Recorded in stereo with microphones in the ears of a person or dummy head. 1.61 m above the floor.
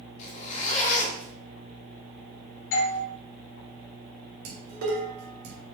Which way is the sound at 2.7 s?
60° left (ahead or behind).